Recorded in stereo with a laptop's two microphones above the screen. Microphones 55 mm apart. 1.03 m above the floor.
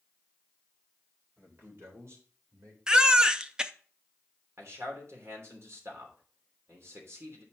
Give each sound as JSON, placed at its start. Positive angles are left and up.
{"t": 1.4, "sound": "a man speaking", "side_deg": -45, "distance_m": 3.5}
{"t": 2.9, "sound": "a baby crying", "side_deg": -15, "distance_m": 0.5}
{"t": 4.6, "sound": "a man speaking", "side_deg": -55, "distance_m": 3.0}